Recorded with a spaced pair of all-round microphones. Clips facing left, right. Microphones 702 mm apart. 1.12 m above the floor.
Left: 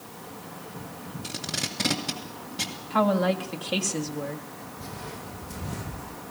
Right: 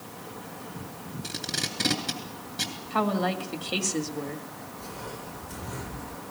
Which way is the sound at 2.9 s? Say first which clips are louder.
Left 4 dB; 20° left (ahead or behind).